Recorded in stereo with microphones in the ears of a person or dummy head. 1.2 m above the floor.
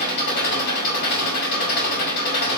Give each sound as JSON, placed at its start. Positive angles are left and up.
{"t": 0.0, "sound": "an engine running", "side_deg": 50, "distance_m": 1.9}